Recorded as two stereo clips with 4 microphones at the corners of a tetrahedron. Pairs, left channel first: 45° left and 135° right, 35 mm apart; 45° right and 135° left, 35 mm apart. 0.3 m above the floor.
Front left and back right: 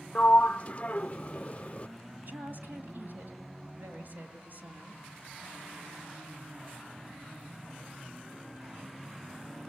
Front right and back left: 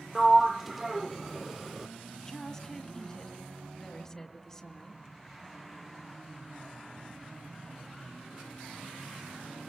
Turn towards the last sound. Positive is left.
turn(degrees=-115)